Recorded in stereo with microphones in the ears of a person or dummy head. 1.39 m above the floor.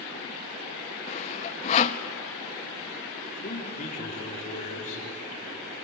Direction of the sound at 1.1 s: 35° left (ahead or behind).